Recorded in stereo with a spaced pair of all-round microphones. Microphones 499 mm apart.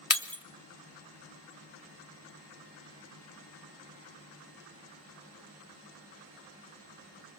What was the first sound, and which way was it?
Breaking glass, 30° left (ahead or behind).